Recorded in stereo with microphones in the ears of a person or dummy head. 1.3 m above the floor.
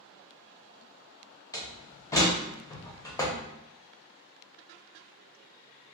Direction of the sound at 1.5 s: 15° left (ahead or behind).